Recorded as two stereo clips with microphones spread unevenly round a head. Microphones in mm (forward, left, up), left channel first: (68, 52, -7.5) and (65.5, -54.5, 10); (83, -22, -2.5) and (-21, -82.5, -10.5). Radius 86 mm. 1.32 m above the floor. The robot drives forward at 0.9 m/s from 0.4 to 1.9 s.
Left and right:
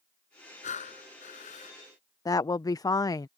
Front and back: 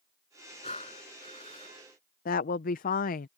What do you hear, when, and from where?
0.6 s breathing: 90° left; by 1.8 s 95° left
2.2 s a woman speaking: 30° left